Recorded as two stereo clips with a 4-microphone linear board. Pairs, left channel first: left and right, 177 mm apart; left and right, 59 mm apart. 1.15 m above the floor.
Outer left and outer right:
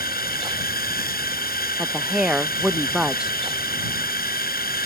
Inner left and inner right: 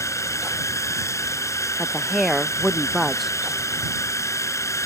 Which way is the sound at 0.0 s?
55° left (ahead or behind).